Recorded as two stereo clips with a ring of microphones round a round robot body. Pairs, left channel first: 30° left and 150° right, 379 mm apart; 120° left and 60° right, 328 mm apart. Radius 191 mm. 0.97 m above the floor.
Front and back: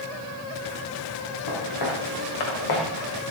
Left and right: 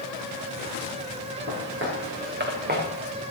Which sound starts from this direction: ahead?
Footsteps, at 1.5 s.